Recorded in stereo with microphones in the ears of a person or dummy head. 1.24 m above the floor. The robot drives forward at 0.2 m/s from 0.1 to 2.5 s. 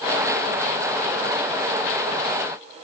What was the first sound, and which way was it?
Only background noise.